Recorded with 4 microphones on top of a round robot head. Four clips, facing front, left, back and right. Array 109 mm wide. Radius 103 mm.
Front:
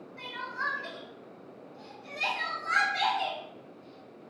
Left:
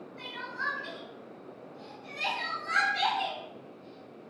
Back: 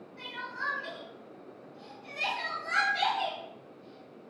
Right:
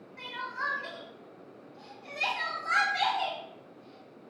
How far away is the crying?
About 0.6 m.